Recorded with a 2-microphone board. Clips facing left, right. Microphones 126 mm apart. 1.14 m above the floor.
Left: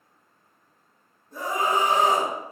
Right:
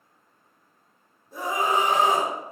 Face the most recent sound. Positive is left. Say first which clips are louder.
# even
turn(degrees=-5)  # may be behind; listen again after turning